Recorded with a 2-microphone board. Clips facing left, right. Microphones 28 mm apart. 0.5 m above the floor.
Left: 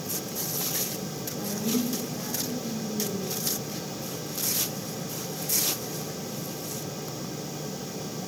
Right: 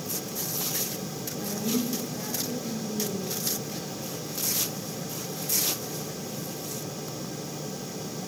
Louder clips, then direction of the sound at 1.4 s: Left 1 dB; 10° left (ahead or behind).